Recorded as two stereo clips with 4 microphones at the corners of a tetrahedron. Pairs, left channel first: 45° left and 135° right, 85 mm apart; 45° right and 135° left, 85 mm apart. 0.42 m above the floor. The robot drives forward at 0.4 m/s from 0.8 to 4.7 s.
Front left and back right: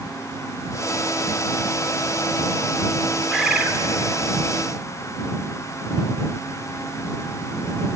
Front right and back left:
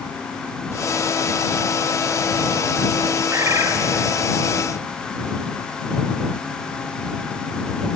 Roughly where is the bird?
Behind left.